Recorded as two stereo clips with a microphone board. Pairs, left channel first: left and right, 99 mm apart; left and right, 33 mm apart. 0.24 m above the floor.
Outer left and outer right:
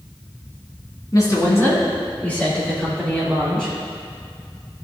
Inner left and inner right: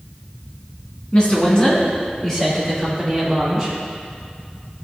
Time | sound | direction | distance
1.1 | a woman speaking | 40° left (ahead or behind) | 2.5 m